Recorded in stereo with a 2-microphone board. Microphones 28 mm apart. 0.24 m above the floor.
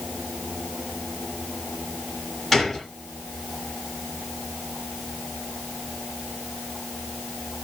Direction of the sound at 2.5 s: 10° left (ahead or behind).